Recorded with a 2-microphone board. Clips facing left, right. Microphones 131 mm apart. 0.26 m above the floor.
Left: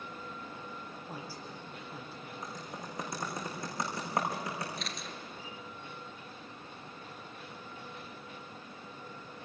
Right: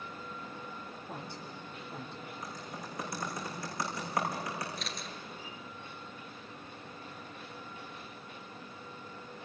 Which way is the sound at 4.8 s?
Centre (ahead or behind).